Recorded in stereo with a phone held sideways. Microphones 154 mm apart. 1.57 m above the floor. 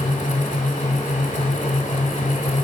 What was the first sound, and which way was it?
A fan, 50° left (ahead or behind).